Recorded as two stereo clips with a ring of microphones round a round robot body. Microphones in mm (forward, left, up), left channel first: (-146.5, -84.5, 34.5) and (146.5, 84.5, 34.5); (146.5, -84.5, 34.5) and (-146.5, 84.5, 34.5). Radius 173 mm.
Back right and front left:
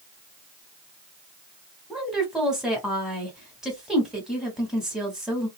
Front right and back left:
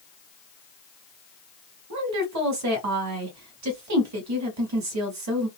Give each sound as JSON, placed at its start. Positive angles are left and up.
{"t": 1.9, "sound": "a woman speaking", "azimuth_deg": 120, "distance_m": 1.6}